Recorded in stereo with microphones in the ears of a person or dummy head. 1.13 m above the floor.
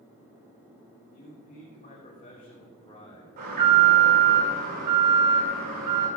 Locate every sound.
1.1 s a man speaking: 40° left (ahead or behind), 3 m; by 3.3 s 20° left (ahead or behind), 3.5 m
3.4 s an alarm: 45° right (ahead or behind), 5.5 m